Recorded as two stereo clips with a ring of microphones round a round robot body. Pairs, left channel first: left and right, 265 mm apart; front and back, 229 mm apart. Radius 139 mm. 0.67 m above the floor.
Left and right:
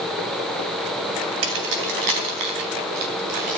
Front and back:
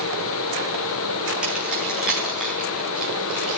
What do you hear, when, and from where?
1.4 s keys jangling: 95° right, 3 m; by 3.6 s 90° right, 5 m